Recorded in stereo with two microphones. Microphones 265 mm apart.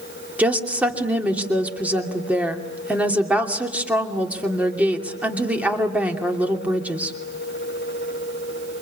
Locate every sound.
0.4 s a woman speaking: 5° right (ahead or behind), 2.5 m